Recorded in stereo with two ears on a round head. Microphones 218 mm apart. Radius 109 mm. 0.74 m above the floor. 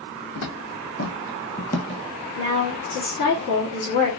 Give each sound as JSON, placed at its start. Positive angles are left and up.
{"t": 0.3, "sound": "footsteps", "side_deg": 65, "distance_m": 2.0}
{"t": 2.4, "sound": "a woman speaking", "side_deg": 50, "distance_m": 1.4}